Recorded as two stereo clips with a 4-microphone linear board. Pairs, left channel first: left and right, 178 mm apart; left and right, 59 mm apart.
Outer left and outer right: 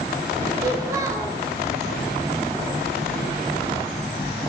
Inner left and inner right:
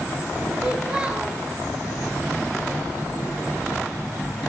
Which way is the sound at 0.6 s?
20° right (ahead or behind).